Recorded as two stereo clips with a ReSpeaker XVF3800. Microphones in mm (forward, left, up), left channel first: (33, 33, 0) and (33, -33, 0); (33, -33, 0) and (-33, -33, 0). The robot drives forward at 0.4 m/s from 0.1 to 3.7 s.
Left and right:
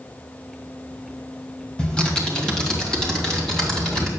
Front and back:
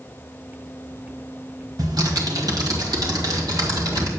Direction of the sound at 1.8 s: 165° left.